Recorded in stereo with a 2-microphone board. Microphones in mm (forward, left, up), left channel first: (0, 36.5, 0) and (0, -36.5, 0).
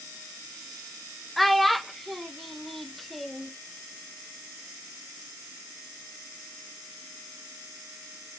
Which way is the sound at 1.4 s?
Centre (ahead or behind).